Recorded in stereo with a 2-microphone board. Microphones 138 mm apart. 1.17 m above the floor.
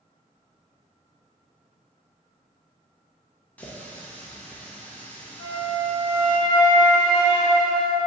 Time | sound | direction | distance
3.6 | a running tap | 10° left (ahead or behind) | 0.6 m
5.4 | a flute | 35° left (ahead or behind) | 1.4 m